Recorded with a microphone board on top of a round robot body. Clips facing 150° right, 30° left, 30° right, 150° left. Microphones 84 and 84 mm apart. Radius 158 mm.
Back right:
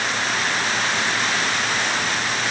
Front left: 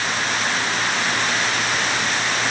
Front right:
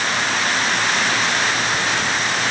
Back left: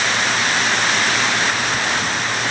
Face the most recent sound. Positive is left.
No sound to turn to.